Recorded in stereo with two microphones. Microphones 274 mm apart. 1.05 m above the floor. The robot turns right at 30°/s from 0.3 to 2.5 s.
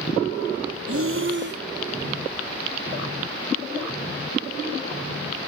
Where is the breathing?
55° right (ahead or behind), 0.7 m; by 1.6 s 35° right (ahead or behind), 0.7 m.